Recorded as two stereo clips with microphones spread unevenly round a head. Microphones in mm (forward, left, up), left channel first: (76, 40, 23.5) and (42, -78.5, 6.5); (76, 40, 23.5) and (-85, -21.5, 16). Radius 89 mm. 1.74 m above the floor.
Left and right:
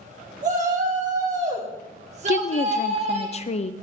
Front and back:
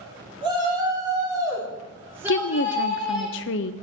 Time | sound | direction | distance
0.4 | a shout | 95° right | 6 m
2.3 | a woman speaking | 40° left | 0.9 m